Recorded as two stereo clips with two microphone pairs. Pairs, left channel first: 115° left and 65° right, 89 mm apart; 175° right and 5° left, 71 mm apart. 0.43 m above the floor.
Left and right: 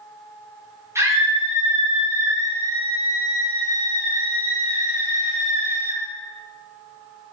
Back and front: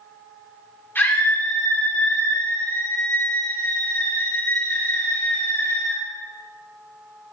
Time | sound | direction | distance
0.9 | a scream | 120° right | 4 m